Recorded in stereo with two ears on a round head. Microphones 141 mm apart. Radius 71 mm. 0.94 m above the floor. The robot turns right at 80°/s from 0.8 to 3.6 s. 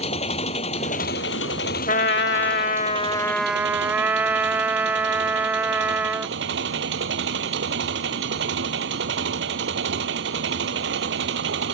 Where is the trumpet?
55° left; by 6.3 s 170° right.